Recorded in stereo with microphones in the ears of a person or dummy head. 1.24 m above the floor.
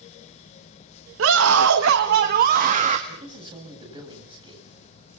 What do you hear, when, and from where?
1.2 s a scream: 80° right, 1.4 m; by 3.0 s 40° right (ahead or behind), 2 m
3.1 s a man speaking: 30° right (ahead or behind), 8 m